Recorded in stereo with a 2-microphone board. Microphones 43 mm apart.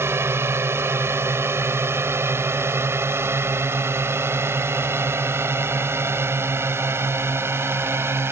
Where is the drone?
75° right (ahead or behind); by 8.3 s 70° right (ahead or behind).